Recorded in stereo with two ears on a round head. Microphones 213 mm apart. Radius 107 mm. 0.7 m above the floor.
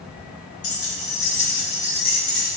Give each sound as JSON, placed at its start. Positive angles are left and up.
{"t": 0.6, "sound": "keys jangling", "side_deg": 60, "distance_m": 1.4}